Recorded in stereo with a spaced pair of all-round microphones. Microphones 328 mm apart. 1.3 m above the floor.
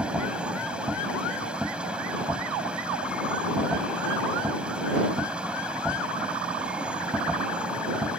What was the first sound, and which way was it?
A machine running, 5° right (ahead or behind).